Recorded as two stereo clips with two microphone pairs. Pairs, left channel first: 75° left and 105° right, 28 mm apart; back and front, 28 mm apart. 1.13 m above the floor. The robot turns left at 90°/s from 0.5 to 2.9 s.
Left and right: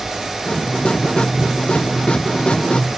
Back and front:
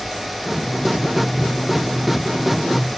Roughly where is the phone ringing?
No phone ringing in this recording.